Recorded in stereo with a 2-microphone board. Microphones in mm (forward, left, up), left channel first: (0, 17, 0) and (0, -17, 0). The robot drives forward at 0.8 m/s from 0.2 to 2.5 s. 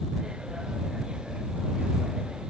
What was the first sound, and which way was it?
Only background noise.